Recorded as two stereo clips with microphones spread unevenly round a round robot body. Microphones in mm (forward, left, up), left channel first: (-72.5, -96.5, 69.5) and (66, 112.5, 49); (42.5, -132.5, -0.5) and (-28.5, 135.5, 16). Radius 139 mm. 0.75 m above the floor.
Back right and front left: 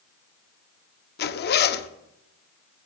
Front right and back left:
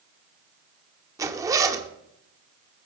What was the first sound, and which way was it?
A zipper, 175° right.